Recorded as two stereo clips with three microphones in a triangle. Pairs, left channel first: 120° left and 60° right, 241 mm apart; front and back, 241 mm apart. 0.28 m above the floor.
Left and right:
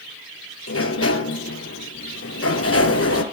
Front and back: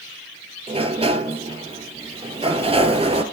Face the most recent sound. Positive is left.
turn(degrees=115)